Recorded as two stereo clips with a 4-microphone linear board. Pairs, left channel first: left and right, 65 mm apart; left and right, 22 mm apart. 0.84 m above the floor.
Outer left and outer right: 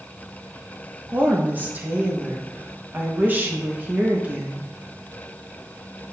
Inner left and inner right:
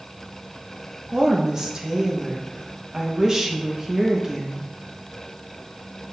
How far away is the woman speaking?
About 0.7 m.